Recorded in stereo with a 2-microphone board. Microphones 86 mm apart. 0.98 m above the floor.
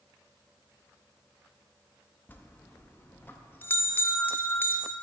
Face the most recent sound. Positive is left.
turn(degrees=20)  # may be behind; listen again after turning